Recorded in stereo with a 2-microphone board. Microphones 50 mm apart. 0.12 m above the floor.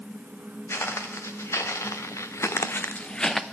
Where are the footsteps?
65° left (ahead or behind), 1.5 m; by 3.4 s 5° left (ahead or behind), 0.6 m.